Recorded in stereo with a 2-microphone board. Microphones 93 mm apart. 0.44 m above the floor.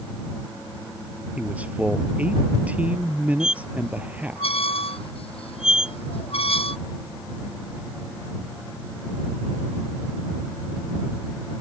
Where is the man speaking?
15° right (ahead or behind).